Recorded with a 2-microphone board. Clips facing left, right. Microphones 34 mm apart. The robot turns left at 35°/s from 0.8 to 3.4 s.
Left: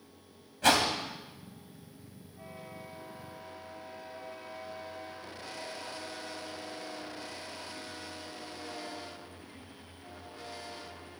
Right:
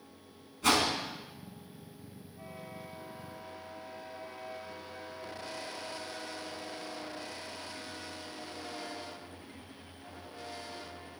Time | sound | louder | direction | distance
0.6 | a whoosh | left 2 dB | 80° left | 2.5 m